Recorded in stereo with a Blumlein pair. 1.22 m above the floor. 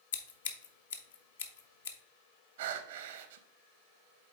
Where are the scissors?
65° left, 0.8 m.